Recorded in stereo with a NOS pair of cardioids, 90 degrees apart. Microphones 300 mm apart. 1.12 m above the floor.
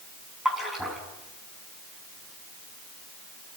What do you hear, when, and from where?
0.5 s a splash: straight ahead, 6.5 m